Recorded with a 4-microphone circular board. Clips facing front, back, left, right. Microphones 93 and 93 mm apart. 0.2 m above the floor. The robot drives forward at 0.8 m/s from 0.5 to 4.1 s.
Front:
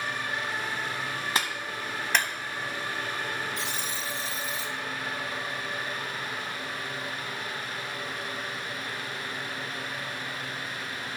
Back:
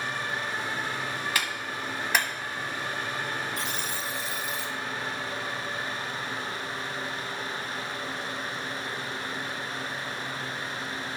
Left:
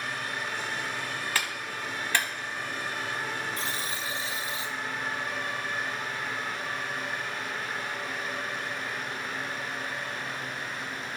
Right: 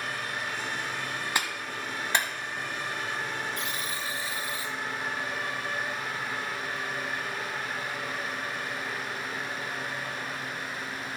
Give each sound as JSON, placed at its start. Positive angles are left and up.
{"t": 1.4, "sound": "a clap", "azimuth_deg": -35, "distance_m": 1.2}
{"t": 3.6, "sound": "a buzzer", "azimuth_deg": 140, "distance_m": 1.0}